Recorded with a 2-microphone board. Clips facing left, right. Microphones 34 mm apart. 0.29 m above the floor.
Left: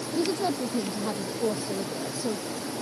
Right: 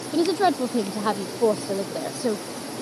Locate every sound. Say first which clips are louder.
0.1 s a woman speaking: right 7 dB; 80° right; by 2.4 s 85° right